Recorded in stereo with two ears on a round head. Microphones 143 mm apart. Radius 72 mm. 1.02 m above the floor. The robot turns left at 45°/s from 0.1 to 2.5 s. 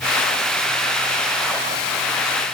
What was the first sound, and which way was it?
Only background noise.